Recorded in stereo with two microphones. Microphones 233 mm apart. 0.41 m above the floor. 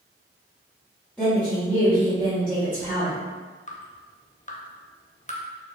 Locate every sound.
1.2 s a woman speaking: 5° left (ahead or behind), 1.5 m
3.7 s dripping: 30° left (ahead or behind), 0.5 m